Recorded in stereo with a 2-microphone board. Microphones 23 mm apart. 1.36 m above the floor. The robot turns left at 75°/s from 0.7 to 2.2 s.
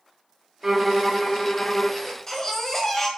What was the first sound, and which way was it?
A violin, 155° right.